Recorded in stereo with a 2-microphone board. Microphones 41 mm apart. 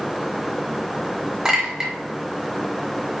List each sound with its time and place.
1.4 s a clink: 15° right (ahead or behind), 0.9 m